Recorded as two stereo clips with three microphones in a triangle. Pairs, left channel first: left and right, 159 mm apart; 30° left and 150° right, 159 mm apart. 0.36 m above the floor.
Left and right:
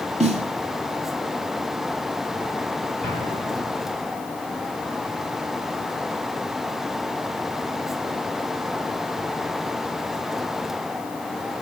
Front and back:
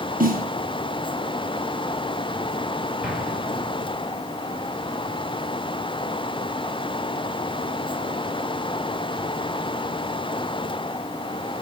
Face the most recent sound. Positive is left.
turn(degrees=-65)